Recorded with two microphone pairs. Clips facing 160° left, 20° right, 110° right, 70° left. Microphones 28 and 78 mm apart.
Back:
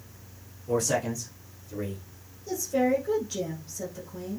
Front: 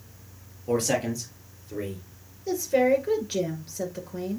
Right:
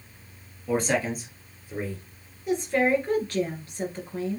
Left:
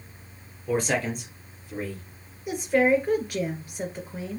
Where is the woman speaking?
10° right, 2 m.